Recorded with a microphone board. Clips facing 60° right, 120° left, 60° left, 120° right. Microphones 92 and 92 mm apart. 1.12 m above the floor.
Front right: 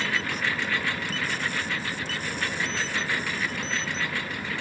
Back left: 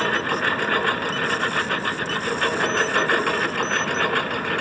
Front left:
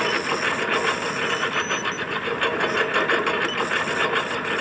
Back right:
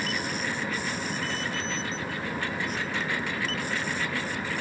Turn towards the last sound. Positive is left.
turn(degrees=90)